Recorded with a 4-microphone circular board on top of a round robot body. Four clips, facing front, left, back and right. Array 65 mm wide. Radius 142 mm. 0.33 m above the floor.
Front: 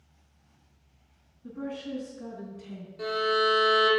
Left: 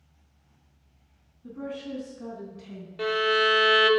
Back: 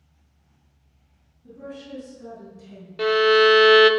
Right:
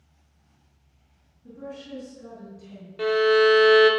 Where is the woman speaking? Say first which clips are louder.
Left 3 dB, front 2 dB; 50° left, 4 m; by 2.9 s 65° left, 4 m.